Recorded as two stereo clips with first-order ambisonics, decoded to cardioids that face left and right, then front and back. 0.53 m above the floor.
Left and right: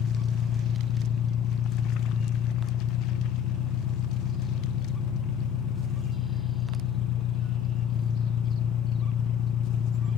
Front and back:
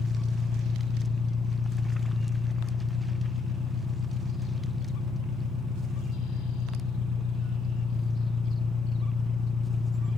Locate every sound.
0.0 s an engine running: 75° left, 1.4 m